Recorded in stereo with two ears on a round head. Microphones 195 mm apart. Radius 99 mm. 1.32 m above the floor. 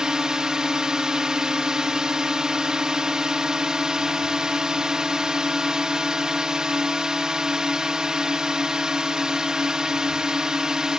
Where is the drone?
5° right (ahead or behind).